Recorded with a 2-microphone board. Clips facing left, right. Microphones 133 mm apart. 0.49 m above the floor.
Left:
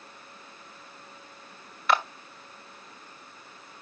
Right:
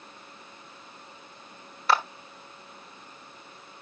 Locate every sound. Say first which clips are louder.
1.9 s a clap: even; 35° right (ahead or behind), 1.3 m